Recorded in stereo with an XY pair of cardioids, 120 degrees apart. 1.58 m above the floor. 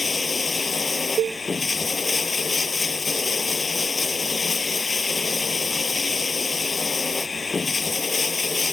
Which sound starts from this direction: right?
A cowbell, at 1.2 s.